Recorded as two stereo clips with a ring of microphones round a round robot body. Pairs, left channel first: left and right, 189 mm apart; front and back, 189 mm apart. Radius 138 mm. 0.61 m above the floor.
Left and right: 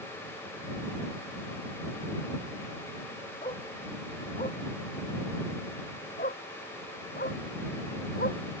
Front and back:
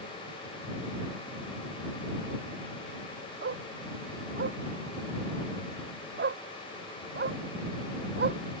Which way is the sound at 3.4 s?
160° left.